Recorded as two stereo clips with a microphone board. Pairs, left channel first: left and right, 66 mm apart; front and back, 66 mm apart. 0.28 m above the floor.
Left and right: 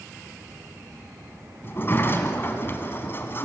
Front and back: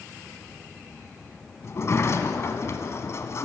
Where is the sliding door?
40° left, 1.8 m.